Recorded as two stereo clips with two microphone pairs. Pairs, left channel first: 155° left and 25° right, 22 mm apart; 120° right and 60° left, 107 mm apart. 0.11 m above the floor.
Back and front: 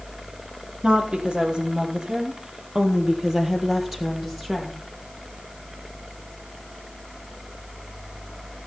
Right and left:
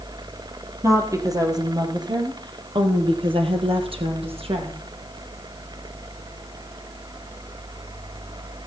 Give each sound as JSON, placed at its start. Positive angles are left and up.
{"t": 0.8, "sound": "a woman speaking", "azimuth_deg": 5, "distance_m": 2.5}